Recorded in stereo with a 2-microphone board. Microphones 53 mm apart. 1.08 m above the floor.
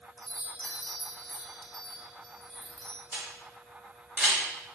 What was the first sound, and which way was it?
A chime, 5° left (ahead or behind).